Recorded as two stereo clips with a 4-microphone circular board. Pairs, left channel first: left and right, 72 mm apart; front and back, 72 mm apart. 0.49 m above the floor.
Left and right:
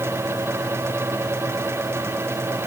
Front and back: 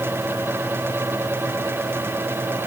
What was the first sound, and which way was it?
Only background noise.